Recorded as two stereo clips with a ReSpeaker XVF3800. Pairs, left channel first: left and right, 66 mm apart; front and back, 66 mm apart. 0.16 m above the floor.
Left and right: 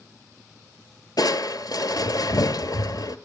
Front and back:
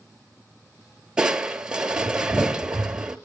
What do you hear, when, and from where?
1.2 s crushing: 100° left, 1.1 m